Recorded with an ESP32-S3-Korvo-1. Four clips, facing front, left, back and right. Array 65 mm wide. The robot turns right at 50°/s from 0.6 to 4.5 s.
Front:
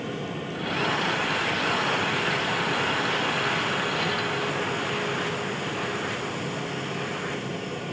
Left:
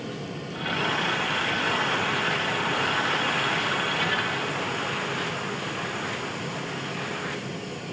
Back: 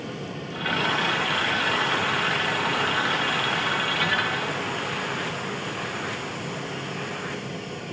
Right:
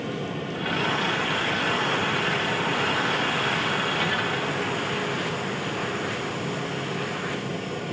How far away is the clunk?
I don't hear a clunk.